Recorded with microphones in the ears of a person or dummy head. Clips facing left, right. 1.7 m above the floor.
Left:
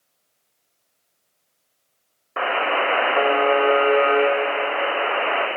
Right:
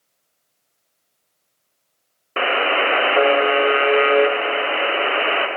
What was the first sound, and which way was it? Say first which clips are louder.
A buzzer: right 2 dB; 40° right (ahead or behind).